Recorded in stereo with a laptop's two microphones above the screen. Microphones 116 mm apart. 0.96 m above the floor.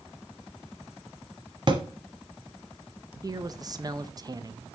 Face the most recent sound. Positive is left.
turn(degrees=-35)  # may be behind; listen again after turning